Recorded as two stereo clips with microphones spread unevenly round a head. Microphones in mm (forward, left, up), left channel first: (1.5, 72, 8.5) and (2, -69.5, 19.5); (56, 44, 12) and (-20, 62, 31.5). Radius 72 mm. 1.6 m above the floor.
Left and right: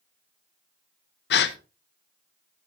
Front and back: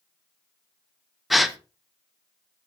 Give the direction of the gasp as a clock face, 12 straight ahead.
9 o'clock.